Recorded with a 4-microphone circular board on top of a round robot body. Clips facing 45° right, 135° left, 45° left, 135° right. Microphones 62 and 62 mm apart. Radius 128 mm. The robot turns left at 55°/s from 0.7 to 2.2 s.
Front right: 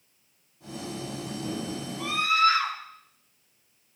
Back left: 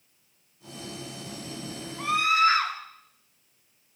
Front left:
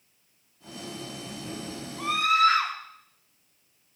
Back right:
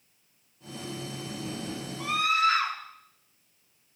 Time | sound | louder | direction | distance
2.0 | a scream | back left 1 dB, front left 4 dB | 85° left | 3.5 m